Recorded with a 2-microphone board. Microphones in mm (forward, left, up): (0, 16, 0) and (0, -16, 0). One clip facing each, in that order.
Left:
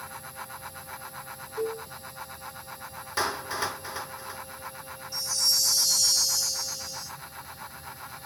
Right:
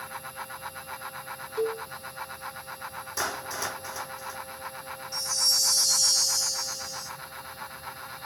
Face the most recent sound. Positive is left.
turn(degrees=5)  # may be behind; listen again after turning